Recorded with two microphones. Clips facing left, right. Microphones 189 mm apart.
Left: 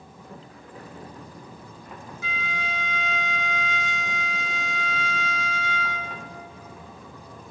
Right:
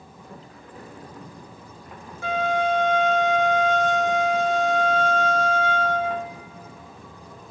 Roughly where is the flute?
Right.